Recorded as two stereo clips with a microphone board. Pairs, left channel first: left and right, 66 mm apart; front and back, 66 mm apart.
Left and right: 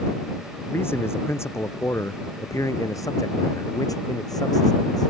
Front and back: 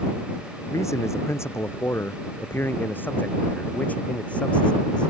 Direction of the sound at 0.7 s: 40° left.